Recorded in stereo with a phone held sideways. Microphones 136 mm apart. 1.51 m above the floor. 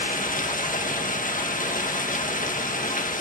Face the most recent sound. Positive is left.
turn(degrees=80)